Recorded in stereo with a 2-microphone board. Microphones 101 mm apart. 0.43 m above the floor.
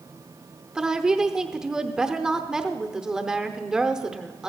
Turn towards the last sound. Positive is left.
turn(degrees=-5)  # may be behind; listen again after turning